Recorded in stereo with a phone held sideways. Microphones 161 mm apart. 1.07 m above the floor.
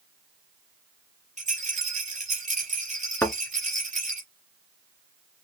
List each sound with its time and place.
1.4 s a rattle: 50° right (ahead or behind), 3.5 m
3.2 s a thud: 15° left (ahead or behind), 1.4 m